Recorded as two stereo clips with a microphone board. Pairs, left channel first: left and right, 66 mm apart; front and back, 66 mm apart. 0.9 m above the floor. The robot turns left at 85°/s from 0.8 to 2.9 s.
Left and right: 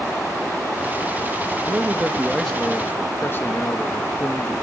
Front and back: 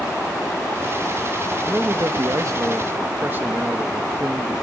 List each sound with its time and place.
1.6 s a man speaking: 120° right, 1.1 m; by 4.5 s 130° left, 1.1 m